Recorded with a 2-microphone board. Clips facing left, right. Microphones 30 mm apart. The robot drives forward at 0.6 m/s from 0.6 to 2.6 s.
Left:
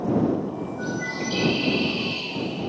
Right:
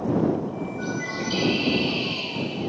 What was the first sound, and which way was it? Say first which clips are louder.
A bird: left 1 dB; 25° right (ahead or behind).